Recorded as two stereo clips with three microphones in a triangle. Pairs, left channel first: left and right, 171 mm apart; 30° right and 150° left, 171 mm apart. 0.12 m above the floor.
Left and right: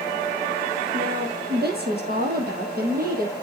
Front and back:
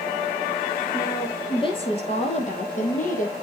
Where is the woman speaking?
100° right, 4 m; by 3.3 s 65° right, 4.5 m.